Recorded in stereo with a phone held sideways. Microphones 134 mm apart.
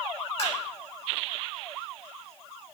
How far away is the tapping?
About 3 m.